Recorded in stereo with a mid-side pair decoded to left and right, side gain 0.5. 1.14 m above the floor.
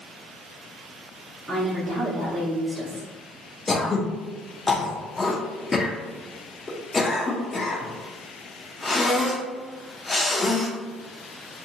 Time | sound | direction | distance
1.5 | a woman speaking | 25° right | 1.2 m
3.7 | throat clearing | 25° left | 0.7 m